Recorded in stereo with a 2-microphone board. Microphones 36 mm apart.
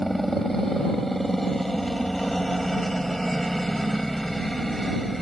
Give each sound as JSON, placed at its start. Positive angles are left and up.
{"t": 0.0, "sound": "a helicopter", "side_deg": 5}